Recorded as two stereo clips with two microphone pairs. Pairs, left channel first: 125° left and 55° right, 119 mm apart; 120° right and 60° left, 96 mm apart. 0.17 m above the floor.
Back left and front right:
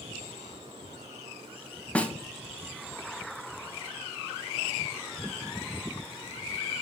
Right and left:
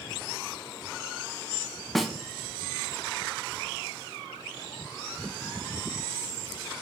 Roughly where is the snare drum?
Behind left.